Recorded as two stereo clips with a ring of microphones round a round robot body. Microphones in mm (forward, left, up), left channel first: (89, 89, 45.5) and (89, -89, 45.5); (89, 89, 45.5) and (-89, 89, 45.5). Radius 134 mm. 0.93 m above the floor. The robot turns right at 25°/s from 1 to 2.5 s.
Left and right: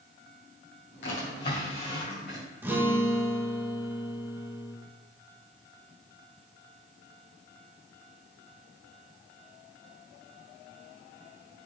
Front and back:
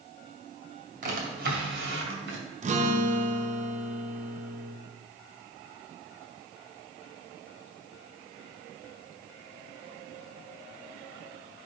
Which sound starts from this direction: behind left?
A drawer, at 1.0 s.